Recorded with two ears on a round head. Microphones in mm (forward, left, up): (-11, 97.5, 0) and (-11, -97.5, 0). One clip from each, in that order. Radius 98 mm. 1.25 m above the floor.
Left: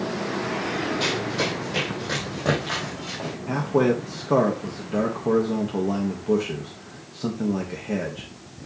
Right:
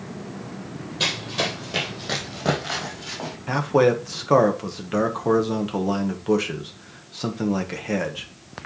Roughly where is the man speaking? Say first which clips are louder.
Right 3 dB; right.